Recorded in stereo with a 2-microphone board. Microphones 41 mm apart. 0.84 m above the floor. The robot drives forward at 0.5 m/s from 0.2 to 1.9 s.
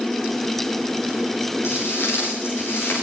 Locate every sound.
1.6 s footsteps: 80° left, 10 m; by 3.0 s 75° left (ahead or behind), 9.5 m